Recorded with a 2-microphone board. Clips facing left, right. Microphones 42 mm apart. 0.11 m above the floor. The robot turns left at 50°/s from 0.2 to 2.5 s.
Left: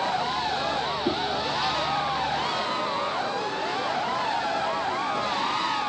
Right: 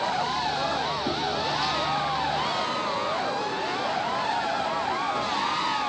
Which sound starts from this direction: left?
A whoosh, at 1.1 s.